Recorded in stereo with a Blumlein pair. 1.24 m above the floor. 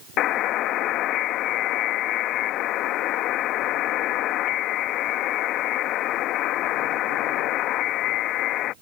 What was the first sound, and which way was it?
A buzzer, 35° left.